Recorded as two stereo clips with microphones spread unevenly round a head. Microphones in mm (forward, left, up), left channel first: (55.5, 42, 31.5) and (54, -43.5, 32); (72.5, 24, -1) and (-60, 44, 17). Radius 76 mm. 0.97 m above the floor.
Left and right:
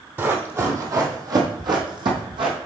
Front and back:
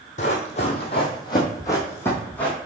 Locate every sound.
0.2 s running footsteps: 40° right, 1.4 m; by 2.6 s 95° right, 1.8 m